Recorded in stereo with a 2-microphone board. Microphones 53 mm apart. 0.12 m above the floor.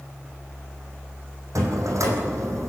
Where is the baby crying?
No baby crying in this recording.